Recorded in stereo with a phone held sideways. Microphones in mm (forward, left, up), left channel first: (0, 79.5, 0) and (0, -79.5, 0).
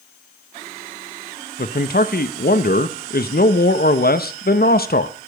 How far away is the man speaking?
About 0.7 m.